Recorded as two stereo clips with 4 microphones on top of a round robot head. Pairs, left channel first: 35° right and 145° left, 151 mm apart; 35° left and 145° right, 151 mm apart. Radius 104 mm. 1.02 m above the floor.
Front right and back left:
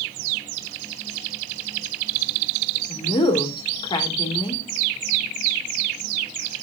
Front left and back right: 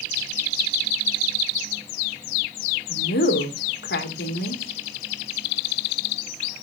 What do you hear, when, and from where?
2.9 s a woman speaking: 25° left, 2.5 m